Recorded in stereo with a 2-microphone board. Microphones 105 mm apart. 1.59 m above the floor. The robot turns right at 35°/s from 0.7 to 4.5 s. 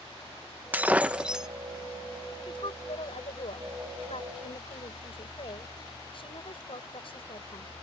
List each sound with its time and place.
0.7 s breaking glass: 15° right (ahead or behind); by 1.5 s 5° right (ahead or behind)
2.5 s a woman speaking: 50° left; by 7.7 s 125° left